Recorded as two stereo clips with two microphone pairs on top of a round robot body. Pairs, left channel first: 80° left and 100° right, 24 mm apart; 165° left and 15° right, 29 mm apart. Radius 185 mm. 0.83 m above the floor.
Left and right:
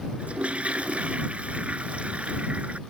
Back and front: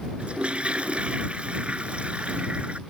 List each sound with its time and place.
0.2 s a toilet flushing: 65° right